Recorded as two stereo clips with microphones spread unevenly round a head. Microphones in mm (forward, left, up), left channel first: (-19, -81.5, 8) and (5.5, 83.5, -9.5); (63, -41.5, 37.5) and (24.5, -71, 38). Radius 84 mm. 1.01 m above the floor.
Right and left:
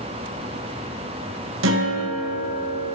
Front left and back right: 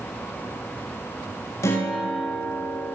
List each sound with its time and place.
1.6 s a guitar: 70° left, 1.1 m